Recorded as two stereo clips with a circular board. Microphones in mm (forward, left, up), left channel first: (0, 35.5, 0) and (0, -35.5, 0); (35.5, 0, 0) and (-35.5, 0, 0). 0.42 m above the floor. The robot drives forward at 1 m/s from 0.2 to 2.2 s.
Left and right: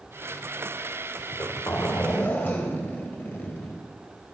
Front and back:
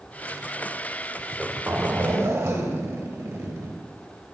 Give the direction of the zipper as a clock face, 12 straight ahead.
9 o'clock.